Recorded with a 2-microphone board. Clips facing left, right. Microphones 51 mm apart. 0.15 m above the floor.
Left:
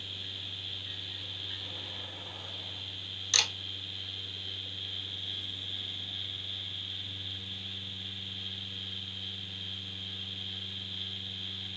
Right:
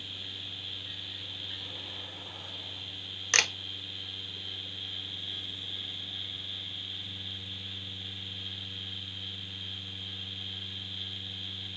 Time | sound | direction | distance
3.3 | a camera shutter | 50° right (ahead or behind) | 0.5 m